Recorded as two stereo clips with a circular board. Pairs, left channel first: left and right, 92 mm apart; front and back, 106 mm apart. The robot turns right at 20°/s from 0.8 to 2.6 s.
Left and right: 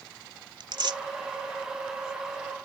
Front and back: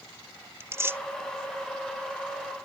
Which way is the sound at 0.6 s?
115° right.